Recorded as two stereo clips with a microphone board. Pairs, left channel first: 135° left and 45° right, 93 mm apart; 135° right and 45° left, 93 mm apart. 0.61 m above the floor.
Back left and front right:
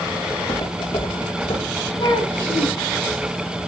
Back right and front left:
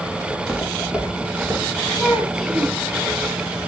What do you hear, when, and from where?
0.3 s footsteps: 130° left, 7 m; by 1.7 s 125° left, 8 m
2.0 s a child speaking: 130° left, 5.5 m